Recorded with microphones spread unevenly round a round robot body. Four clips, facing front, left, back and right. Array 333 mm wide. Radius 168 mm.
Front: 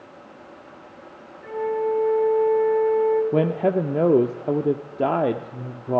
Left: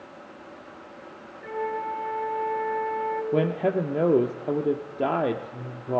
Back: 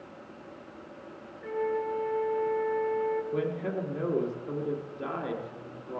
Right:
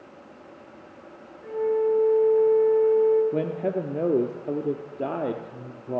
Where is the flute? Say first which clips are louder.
Right 7 dB, front 6 dB; 90° left, 3 m.